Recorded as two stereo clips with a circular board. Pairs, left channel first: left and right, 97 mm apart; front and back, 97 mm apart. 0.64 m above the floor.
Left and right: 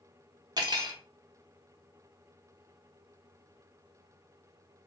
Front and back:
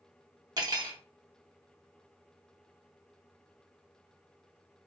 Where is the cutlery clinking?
135° right, 0.8 m.